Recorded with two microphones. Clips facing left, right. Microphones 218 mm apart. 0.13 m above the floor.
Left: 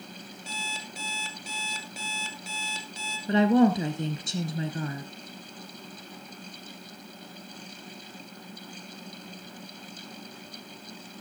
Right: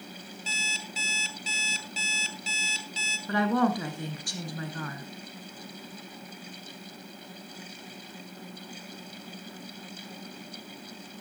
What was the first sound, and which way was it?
An alarm clock, 55° left (ahead or behind).